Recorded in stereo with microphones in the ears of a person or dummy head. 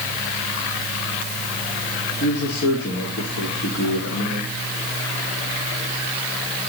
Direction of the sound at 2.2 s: 80° left.